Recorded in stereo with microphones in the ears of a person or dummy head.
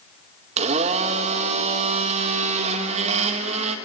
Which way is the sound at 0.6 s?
35° right (ahead or behind).